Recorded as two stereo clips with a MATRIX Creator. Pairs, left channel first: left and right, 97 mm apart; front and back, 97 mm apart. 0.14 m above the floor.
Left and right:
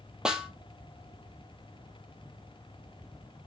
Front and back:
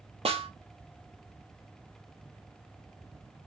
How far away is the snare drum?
About 0.5 m.